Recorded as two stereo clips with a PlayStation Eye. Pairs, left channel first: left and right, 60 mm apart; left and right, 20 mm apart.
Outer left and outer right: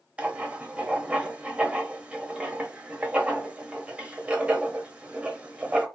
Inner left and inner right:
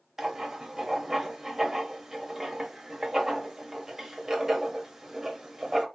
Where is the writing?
20° right (ahead or behind), 0.8 m.